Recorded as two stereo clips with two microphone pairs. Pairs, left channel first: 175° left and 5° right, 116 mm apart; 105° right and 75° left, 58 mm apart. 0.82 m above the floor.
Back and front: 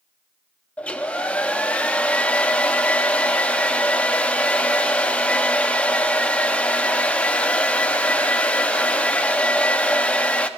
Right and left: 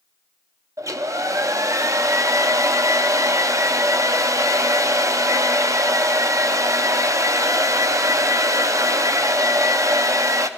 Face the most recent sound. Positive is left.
turn(degrees=95)